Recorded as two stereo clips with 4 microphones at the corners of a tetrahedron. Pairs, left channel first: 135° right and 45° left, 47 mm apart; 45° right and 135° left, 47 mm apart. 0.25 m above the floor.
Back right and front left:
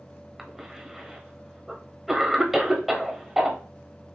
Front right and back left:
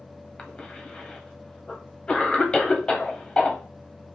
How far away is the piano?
I don't hear a piano.